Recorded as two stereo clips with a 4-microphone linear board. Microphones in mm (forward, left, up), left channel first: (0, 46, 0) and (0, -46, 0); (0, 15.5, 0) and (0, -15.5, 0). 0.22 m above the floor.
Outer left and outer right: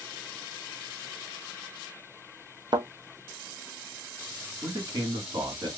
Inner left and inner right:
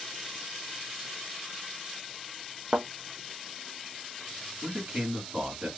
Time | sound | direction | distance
2.7 | a thud | 55° right (ahead or behind) | 0.9 m
4.6 | a man speaking | 50° right (ahead or behind) | 2 m